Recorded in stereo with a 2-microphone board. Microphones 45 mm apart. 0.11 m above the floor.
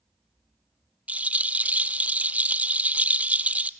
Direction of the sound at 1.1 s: 35° right (ahead or behind).